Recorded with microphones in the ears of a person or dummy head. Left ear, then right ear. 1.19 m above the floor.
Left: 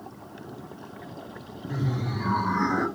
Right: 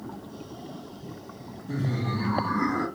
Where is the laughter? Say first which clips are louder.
Right 1 dB; 50° right (ahead or behind), 1.2 m; by 2.9 s 20° left (ahead or behind), 0.7 m.